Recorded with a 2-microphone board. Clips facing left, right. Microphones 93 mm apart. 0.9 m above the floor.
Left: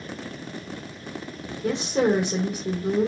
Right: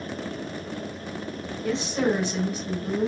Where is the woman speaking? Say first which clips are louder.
Left 3 dB; 60° left (ahead or behind), 1.5 m.